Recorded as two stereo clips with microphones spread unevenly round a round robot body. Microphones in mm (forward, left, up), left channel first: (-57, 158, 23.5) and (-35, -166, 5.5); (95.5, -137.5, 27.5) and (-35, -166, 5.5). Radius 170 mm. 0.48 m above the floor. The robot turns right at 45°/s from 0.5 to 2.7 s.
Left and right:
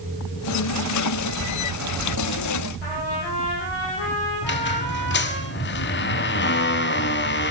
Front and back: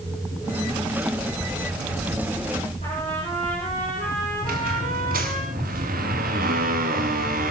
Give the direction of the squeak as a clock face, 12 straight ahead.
7 o'clock.